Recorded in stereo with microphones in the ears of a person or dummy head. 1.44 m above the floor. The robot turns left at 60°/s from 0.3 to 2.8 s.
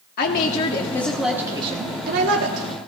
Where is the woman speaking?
55° left, 1.2 m; by 2.7 s 85° right, 1.2 m.